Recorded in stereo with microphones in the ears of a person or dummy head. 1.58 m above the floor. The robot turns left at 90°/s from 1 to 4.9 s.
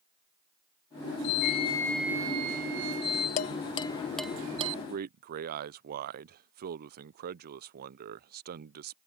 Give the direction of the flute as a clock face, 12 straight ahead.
10 o'clock.